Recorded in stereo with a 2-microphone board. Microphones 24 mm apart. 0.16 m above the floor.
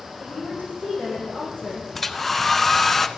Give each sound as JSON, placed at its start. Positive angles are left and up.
{"t": 0.2, "sound": "a woman speaking", "side_deg": 75, "distance_m": 8.5}
{"t": 1.9, "sound": "a hair dryer", "side_deg": 10, "distance_m": 0.7}